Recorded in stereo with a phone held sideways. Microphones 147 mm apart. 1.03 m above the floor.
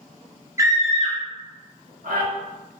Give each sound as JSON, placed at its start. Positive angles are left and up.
{"t": 0.6, "sound": "a scream", "side_deg": -20, "distance_m": 0.5}